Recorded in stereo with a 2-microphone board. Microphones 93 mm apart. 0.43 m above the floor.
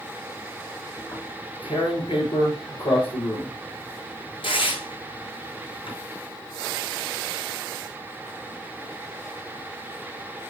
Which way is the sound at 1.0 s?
65° left (ahead or behind).